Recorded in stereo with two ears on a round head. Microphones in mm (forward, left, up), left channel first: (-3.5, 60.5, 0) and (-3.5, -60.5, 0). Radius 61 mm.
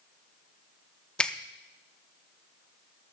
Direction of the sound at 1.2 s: 5° left (ahead or behind).